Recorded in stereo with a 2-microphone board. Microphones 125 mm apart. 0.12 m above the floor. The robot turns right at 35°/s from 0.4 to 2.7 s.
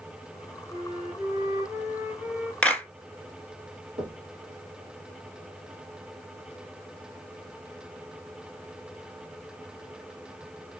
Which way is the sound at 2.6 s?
10° left (ahead or behind).